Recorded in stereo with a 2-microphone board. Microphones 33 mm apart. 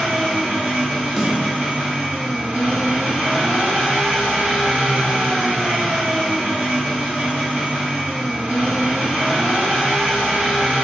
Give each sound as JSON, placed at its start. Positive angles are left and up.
{"t": 0.0, "sound": "an engine running", "side_deg": -65, "distance_m": 1.3}
{"t": 1.2, "sound": "a snare drum", "side_deg": -10, "distance_m": 0.7}